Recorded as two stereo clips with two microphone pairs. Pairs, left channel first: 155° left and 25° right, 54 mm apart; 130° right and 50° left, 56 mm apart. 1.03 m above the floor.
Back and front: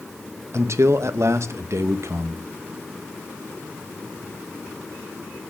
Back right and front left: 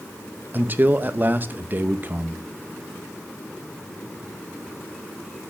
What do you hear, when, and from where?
0.5 s a man speaking: 5° right, 0.7 m